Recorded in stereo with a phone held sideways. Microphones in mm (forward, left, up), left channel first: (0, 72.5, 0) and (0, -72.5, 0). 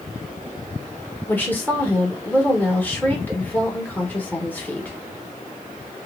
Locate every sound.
1.3 s a woman speaking: 10° left (ahead or behind), 0.9 m